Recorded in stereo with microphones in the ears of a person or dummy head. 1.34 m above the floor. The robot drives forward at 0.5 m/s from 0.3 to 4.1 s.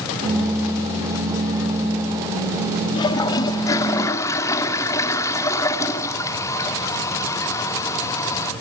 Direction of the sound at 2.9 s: 25° left (ahead or behind).